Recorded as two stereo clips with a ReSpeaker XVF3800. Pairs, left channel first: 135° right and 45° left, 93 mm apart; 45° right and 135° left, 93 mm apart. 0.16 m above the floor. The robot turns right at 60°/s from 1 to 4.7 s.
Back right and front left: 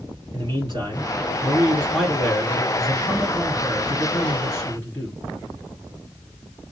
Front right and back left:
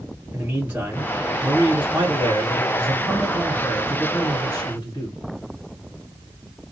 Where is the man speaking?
75° left, 2.5 m; by 5.2 s 65° right, 2.5 m.